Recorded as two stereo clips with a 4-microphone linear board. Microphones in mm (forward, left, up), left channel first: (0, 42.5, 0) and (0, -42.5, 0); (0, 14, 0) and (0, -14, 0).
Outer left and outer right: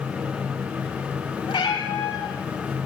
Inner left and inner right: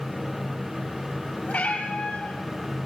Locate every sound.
1.5 s a cat meowing: 75° left (ahead or behind), 4 m